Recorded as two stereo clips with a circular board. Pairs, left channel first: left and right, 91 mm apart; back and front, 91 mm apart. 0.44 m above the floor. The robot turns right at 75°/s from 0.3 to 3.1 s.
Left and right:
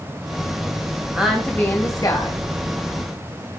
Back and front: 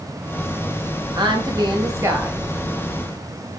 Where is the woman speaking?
15° right, 2 m; by 2.4 s 80° left, 2 m.